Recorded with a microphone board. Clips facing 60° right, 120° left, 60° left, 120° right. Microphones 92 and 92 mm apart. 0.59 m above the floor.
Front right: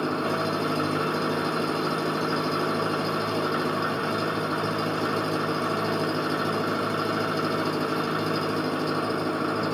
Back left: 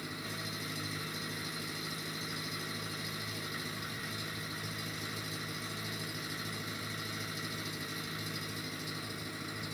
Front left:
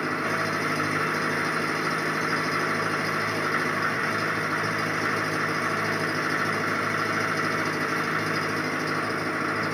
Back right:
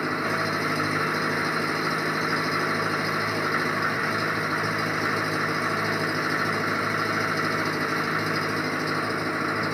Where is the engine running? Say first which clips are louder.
Front right 17 dB, back right 1 dB; 30° right.